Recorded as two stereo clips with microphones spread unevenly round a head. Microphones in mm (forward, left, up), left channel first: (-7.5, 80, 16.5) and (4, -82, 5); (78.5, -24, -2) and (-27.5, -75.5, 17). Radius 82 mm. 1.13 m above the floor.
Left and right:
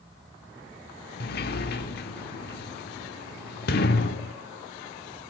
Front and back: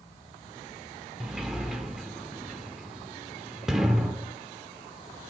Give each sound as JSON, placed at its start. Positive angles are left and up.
{"t": 1.2, "sound": "a sliding door", "azimuth_deg": 120, "distance_m": 1.6}